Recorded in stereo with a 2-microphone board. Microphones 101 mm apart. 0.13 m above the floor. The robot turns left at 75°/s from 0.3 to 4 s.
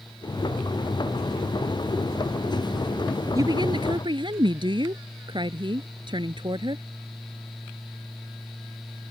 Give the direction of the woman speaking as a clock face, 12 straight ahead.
2 o'clock.